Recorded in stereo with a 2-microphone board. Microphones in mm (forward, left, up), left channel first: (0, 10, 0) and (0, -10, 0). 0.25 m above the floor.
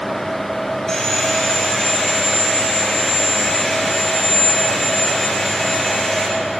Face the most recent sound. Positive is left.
turn(degrees=15)  # may be behind; listen again after turning